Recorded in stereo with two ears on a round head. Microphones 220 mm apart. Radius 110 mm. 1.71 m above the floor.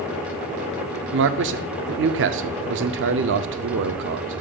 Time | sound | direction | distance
1.1 | a man speaking | 50° right (ahead or behind) | 0.5 m